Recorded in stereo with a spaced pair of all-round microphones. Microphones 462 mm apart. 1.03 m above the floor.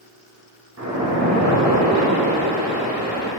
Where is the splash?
35° right (ahead or behind), 0.9 m.